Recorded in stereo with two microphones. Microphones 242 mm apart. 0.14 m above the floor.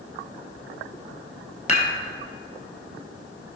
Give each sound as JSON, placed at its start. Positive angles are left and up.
{"t": 1.7, "sound": "dishes clattering", "side_deg": 30, "distance_m": 2.0}